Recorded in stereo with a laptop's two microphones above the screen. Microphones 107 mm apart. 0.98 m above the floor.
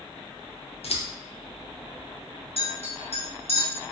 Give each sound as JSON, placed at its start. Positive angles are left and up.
{"t": 0.8, "sound": "scissors", "side_deg": 70, "distance_m": 0.5}
{"t": 2.6, "sound": "a clink", "side_deg": 70, "distance_m": 1.0}